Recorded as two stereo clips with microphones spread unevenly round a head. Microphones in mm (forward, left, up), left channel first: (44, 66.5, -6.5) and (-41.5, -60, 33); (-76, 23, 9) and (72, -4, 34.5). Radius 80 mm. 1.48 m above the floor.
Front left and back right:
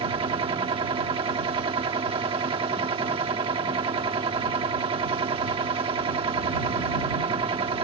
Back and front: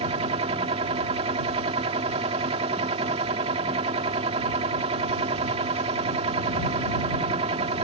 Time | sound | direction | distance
0.0 | a machine running | 65° right | ?